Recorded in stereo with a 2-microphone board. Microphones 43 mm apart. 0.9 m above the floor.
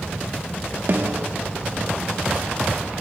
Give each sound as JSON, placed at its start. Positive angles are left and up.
{"t": 0.9, "sound": "a snare drum", "side_deg": -55, "distance_m": 0.8}